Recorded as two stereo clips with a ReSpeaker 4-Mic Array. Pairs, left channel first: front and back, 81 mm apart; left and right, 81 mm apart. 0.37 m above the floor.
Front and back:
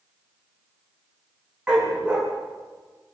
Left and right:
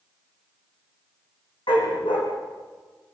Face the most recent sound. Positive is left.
turn(degrees=100)